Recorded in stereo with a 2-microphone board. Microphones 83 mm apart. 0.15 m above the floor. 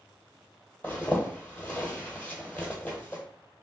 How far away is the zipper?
About 1.0 m.